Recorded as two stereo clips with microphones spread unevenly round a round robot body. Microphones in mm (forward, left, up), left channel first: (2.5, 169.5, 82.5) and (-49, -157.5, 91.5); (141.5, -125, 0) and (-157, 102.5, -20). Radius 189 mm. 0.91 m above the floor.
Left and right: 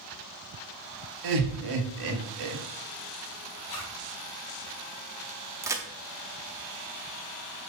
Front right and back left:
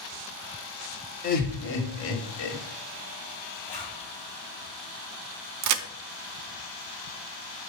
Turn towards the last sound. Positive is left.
turn(degrees=180)